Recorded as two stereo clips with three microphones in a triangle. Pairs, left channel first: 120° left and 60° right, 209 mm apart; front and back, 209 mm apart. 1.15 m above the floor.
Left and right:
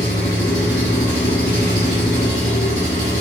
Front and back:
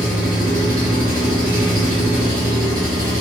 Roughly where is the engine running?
Behind.